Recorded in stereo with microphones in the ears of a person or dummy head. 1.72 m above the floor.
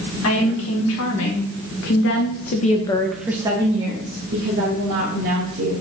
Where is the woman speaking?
85° left, 1.8 m; by 5.8 s 60° right (ahead or behind), 1.9 m.